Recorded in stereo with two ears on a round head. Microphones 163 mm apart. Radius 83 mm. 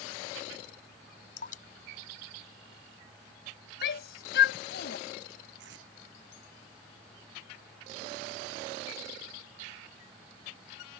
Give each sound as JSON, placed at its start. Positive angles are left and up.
{"t": 1.4, "sound": "dripping", "side_deg": 45}
{"t": 3.8, "sound": "a shout", "side_deg": 65}
{"t": 5.6, "sound": "tape being pulled", "side_deg": -75}